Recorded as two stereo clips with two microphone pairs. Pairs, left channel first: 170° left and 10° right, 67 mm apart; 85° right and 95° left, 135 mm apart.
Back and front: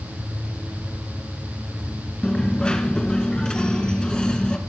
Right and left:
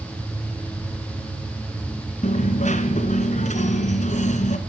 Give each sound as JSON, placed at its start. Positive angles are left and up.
{"t": 2.2, "sound": "a dropped coin", "azimuth_deg": -110, "distance_m": 1.5}